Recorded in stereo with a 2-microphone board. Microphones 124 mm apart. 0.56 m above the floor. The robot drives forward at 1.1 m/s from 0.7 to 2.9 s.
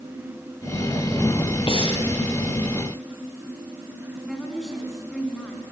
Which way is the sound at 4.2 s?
Centre (ahead or behind).